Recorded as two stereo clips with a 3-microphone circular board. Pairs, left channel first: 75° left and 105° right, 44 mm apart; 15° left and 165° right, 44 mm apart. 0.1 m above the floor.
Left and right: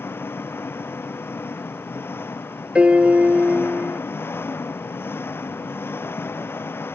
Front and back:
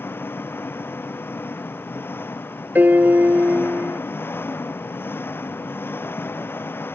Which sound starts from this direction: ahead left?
An engine running, at 0.0 s.